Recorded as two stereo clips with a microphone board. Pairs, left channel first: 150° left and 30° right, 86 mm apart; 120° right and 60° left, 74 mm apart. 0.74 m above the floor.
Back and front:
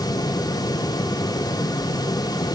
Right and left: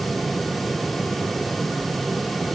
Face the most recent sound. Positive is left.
No sound to turn to.